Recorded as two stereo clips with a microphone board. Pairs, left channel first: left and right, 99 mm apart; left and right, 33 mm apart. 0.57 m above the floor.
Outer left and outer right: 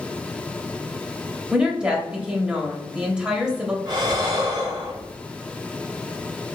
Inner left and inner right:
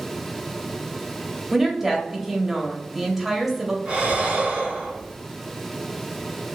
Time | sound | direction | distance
1.5 | a woman speaking | 10° right (ahead or behind) | 1.0 m
3.9 | breathing | 45° right (ahead or behind) | 1.4 m